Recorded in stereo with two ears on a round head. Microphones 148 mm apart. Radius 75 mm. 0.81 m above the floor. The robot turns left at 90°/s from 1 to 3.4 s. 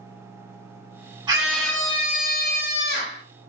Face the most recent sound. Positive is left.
turn(degrees=20)